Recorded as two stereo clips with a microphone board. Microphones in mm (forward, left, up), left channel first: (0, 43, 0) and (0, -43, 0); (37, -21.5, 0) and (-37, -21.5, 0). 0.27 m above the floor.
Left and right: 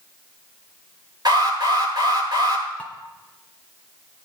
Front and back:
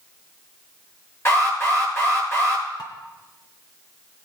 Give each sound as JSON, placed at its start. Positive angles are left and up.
{"t": 1.2, "sound": "an alarm", "azimuth_deg": -55, "distance_m": 8.0}
{"t": 2.8, "sound": "dishes clattering", "azimuth_deg": 20, "distance_m": 1.9}